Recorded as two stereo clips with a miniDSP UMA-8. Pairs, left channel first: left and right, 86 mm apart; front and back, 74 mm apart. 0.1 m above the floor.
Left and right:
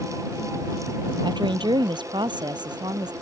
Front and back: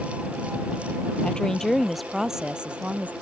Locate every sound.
1.2 s a woman speaking: 75° right; by 3.1 s 115° right